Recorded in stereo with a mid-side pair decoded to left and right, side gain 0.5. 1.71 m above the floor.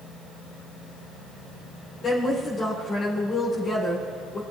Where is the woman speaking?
50° left, 2 m.